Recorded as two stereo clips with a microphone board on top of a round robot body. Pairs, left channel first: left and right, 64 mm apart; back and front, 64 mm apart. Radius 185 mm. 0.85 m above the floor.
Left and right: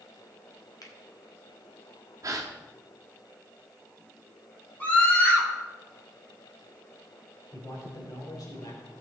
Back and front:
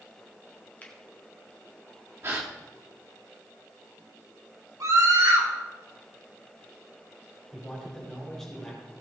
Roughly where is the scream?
Ahead left.